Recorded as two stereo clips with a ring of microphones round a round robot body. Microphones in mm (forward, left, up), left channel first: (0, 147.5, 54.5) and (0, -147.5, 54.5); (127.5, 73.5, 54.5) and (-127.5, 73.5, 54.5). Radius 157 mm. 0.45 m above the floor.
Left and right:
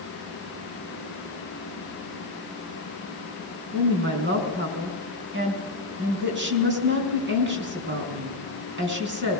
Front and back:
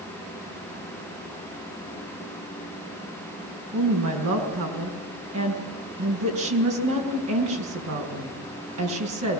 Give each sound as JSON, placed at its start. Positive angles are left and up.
{"t": 3.7, "sound": "a woman speaking", "azimuth_deg": -145, "distance_m": 5.0}